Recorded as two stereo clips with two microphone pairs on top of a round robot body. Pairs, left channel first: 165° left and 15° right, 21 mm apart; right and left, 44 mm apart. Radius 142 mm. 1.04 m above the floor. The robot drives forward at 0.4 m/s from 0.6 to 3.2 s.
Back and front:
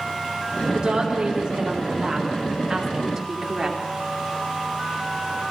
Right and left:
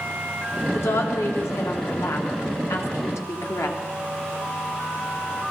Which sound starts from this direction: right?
A woman speaking, at 0.7 s.